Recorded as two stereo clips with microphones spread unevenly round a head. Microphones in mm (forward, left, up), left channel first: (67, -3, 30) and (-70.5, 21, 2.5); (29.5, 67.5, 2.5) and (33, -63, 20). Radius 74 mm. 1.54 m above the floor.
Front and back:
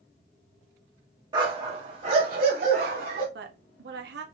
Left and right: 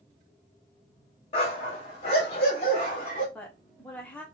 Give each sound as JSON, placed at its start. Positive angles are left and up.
{"t": 1.3, "sound": "a dog barking", "azimuth_deg": 115, "distance_m": 1.1}
{"t": 3.4, "sound": "a woman speaking", "azimuth_deg": 175, "distance_m": 0.8}